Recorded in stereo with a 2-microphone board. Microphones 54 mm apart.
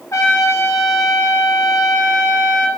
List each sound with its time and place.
0.1 s a trumpet: 70° left (ahead or behind), 2 m